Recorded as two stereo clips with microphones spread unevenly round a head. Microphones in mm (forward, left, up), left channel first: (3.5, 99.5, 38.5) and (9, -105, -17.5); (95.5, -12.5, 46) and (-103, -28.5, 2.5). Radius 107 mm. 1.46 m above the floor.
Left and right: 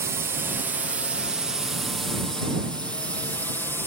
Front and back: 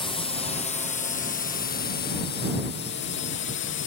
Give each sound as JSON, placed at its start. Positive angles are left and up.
{"t": 0.0, "sound": "a drone", "azimuth_deg": -60}